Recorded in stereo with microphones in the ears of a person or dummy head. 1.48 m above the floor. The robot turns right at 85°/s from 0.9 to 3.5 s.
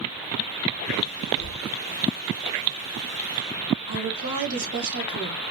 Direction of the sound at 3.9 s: 85° right.